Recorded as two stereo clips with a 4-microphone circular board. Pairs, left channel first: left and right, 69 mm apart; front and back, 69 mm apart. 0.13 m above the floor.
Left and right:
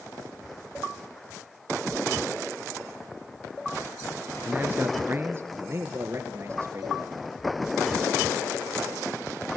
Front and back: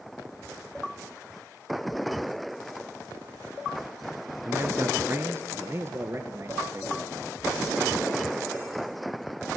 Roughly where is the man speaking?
Behind right.